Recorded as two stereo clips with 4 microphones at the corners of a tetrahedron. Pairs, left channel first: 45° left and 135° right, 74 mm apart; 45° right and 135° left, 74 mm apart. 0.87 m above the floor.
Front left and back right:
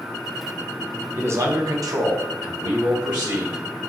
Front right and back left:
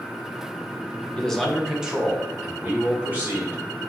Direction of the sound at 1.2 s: 110° right.